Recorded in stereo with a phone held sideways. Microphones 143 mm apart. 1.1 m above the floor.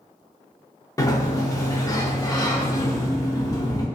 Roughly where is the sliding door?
Left.